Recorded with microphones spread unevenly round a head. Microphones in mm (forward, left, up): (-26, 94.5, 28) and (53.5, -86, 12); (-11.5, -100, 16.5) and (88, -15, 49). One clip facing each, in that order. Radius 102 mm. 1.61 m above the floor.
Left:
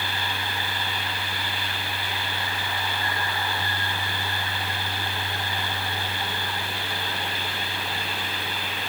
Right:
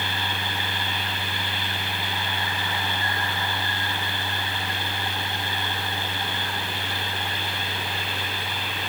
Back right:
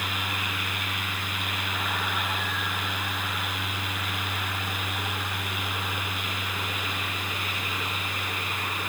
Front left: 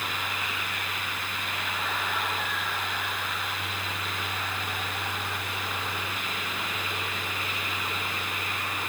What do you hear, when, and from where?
Only background noise.